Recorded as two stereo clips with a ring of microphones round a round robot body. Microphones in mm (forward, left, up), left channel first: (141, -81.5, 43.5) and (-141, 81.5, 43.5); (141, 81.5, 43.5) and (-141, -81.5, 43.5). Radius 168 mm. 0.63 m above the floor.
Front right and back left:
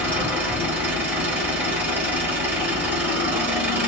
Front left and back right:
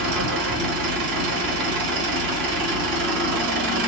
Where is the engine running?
125° right, 2 m.